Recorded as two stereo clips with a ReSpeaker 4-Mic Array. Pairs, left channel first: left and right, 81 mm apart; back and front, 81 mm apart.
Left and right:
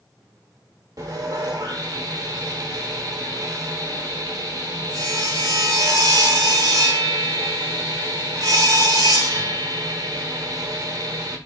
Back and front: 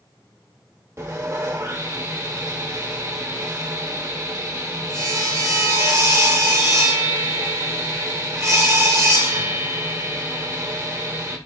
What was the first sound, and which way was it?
Sawing, 55° right.